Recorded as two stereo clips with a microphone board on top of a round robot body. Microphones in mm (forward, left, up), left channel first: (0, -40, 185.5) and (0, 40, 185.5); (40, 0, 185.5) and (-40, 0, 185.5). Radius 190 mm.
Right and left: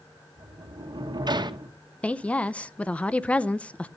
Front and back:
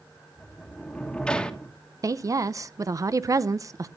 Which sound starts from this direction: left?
A sliding door, at 0.4 s.